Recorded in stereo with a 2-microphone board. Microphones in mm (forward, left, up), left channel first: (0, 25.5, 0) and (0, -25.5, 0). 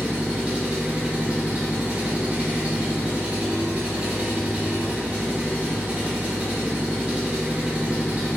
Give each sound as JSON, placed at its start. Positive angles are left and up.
{"t": 0.0, "sound": "an engine running", "side_deg": -25, "distance_m": 0.8}